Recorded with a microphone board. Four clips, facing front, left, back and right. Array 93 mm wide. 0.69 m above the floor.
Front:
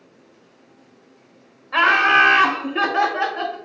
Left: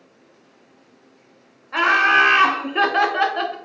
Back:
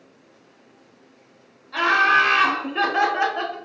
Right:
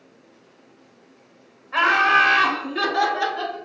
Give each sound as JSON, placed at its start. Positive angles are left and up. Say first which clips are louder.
{"t": 1.7, "sound": "laughter", "louder": "left 1 dB, front 2 dB", "azimuth_deg": 15, "distance_m": 1.0}